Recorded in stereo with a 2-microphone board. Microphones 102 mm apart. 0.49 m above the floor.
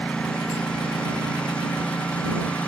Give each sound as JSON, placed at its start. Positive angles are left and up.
{"t": 0.0, "sound": "a lawn mower", "side_deg": 10}